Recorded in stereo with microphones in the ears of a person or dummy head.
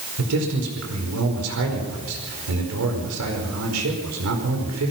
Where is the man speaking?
80° right, 5 m.